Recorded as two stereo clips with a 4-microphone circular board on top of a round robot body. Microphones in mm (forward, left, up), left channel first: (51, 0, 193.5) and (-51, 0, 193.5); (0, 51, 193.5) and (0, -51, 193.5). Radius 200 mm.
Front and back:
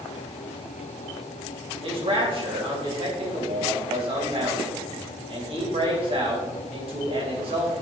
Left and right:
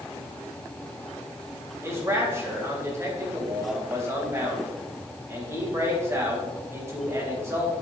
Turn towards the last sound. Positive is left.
turn(degrees=-150)